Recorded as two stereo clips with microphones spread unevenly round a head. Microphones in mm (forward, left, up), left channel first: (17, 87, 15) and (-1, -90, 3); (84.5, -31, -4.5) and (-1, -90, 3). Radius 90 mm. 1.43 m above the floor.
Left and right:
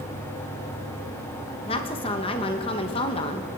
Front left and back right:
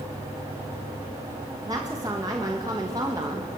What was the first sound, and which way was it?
A woman speaking, 145° left.